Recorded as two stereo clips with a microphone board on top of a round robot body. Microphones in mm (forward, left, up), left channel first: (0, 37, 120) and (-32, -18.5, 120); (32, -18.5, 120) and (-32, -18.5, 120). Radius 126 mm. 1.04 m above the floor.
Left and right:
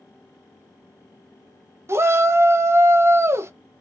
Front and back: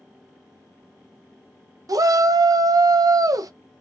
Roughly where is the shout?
Behind.